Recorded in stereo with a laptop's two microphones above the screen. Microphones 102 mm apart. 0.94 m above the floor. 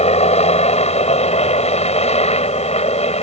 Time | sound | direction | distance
0.0 | a helicopter | 75° left (ahead or behind) | ?